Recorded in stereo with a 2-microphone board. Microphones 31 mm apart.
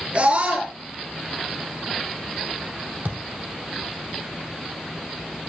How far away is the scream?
About 7 m.